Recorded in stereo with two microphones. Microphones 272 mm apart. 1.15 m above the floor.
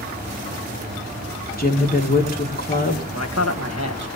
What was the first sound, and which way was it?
A woman speaking, 35° left (ahead or behind).